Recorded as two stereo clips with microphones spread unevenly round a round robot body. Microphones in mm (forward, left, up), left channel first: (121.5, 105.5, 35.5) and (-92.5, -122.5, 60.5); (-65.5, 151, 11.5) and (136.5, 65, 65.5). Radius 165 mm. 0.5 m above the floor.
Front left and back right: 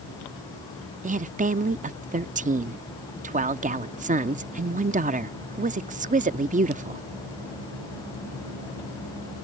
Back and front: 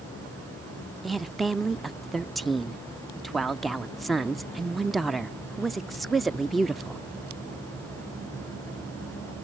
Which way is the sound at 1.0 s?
160° right.